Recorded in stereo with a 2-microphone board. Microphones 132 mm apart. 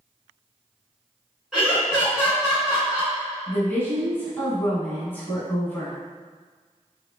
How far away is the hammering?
No hammering in this recording.